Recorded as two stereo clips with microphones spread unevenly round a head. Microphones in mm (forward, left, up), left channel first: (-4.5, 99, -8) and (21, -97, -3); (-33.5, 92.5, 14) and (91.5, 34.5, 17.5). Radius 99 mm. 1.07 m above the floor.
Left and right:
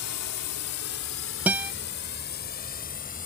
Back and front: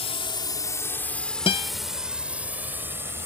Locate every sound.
0.0 s a drone: 110° left; by 3.3 s 45° left
1.5 s a guitar: 165° right